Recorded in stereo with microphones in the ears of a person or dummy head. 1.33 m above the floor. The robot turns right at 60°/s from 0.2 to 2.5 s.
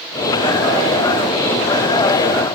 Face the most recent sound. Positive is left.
No sound to turn to.